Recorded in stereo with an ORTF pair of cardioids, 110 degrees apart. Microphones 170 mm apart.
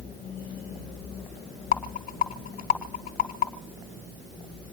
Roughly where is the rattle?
Ahead left.